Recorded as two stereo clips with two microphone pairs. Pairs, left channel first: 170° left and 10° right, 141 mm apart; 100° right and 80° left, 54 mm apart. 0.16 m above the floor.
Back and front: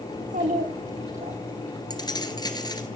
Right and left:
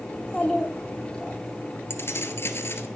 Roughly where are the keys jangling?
Behind right.